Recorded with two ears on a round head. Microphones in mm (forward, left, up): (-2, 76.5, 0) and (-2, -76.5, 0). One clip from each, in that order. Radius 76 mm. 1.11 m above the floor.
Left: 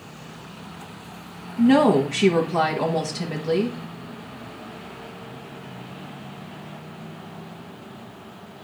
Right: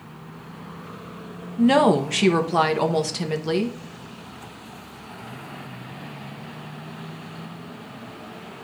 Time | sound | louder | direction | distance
1.6 | a woman speaking | even | 65° right (ahead or behind) | 1.1 m